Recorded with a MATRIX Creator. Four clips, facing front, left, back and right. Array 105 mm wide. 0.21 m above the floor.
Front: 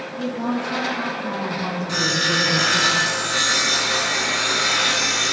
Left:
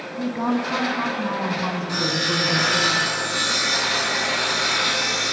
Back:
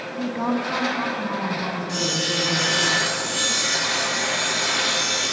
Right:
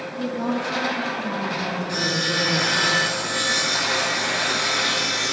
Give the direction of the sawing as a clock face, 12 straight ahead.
11 o'clock.